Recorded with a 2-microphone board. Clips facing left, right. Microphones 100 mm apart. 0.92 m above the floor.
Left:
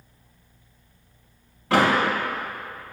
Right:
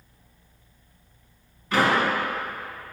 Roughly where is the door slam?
Left.